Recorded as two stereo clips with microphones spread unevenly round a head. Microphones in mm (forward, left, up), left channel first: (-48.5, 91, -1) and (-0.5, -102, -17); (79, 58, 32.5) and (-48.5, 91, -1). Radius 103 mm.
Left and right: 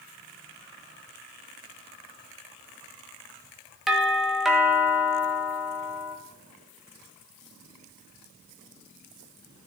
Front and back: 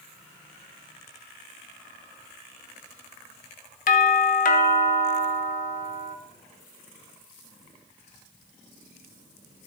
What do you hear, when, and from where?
3.9 s a doorbell: 10° left, 1.0 m